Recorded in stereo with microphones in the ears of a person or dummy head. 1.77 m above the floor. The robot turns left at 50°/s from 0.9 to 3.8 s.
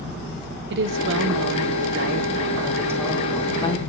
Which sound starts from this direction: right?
A woman speaking, at 0.7 s.